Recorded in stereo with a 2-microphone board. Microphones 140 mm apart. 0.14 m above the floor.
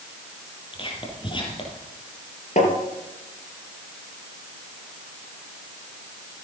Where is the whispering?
40° left (ahead or behind), 3.5 m.